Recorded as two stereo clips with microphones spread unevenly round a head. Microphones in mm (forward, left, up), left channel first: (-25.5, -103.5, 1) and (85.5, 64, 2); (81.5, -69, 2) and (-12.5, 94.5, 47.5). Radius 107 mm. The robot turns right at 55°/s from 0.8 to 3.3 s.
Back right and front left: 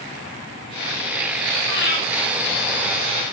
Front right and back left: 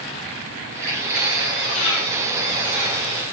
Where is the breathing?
105° right, 1.3 m; by 2.0 s 85° right, 1.3 m.